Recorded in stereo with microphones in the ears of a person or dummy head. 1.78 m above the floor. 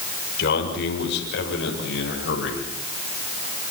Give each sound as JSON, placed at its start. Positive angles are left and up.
{"t": 0.4, "sound": "a man speaking", "side_deg": 70, "distance_m": 6.0}